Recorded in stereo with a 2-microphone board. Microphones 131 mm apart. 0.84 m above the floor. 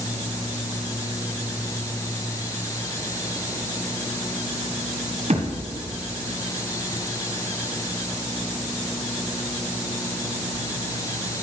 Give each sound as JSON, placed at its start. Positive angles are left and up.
{"t": 5.3, "sound": "a thud", "side_deg": -55, "distance_m": 1.7}